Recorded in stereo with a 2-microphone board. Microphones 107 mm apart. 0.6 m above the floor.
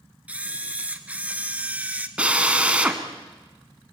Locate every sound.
0.3 s a camera shutter: 15° right (ahead or behind), 1.5 m
2.2 s a drill: 10° right (ahead or behind), 2 m